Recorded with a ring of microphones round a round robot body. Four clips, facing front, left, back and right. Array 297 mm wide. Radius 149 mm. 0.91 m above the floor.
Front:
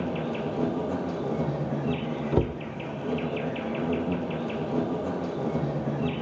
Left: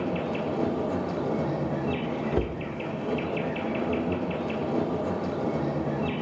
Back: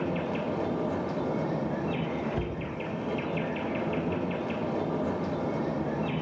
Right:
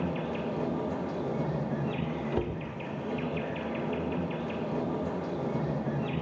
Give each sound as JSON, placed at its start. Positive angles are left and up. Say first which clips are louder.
{"t": 0.0, "sound": "an insect", "louder": "left 4 dB, front 1 dB", "azimuth_deg": 35, "distance_m": 2.5}
{"t": 2.3, "sound": "a cupboard door", "louder": "left 3 dB, front 7 dB", "azimuth_deg": 20, "distance_m": 1.0}